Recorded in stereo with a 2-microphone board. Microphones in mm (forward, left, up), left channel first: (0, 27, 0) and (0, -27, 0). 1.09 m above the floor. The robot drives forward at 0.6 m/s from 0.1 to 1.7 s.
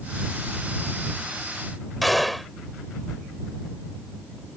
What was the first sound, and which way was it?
A gunshot, centre (ahead or behind).